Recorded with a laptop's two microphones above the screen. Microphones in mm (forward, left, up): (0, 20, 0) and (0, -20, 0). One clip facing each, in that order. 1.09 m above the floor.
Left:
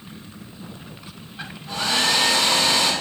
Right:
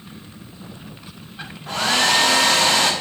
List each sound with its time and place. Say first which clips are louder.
1.7 s a hair dryer: right 3 dB; 65° right (ahead or behind), 1.3 m